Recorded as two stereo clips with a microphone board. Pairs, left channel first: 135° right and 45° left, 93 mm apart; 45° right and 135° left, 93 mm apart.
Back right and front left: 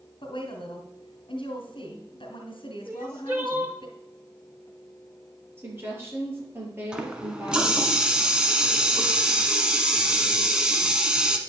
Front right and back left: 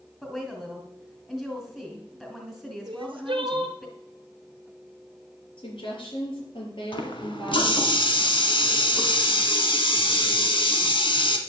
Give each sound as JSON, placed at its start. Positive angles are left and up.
{"t": 0.2, "sound": "a woman speaking", "azimuth_deg": -120, "distance_m": 2.5}
{"t": 2.9, "sound": "crying", "azimuth_deg": 110, "distance_m": 1.7}
{"t": 5.6, "sound": "a woman speaking", "azimuth_deg": -20, "distance_m": 5.5}
{"t": 6.9, "sound": "a running tap", "azimuth_deg": -35, "distance_m": 1.6}